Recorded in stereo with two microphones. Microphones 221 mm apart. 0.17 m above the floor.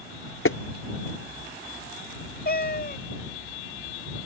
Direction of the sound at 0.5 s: 70° left (ahead or behind).